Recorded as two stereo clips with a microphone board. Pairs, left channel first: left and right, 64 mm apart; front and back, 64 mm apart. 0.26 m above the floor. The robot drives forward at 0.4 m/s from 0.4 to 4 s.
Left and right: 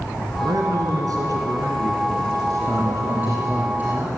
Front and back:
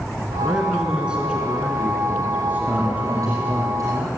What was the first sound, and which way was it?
A man speaking, 100° right.